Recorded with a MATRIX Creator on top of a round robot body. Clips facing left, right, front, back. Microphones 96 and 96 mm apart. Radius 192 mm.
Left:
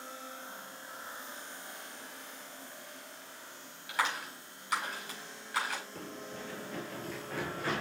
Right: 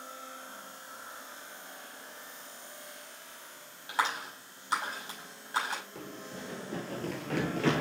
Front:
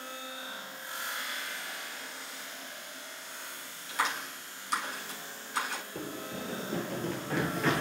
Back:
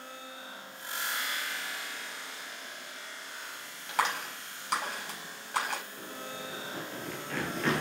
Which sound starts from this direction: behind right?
A clap, at 3.9 s.